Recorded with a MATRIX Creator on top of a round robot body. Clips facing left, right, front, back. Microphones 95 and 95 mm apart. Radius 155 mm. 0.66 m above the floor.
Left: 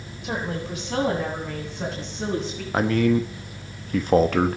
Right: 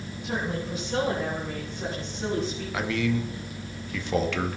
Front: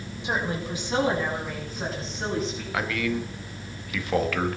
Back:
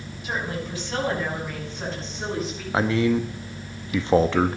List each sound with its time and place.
0.2 s a woman speaking: 70° left, 6.5 m; by 2.6 s 95° left, 8.5 m
2.7 s a man speaking: 125° left, 1.4 m